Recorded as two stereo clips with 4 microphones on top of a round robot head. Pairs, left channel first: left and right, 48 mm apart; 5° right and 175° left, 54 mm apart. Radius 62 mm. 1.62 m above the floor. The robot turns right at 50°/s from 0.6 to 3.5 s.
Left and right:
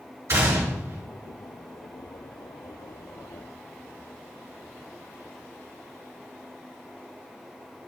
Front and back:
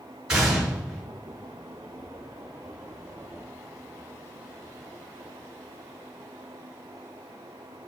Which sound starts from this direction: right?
A gunshot, at 0.3 s.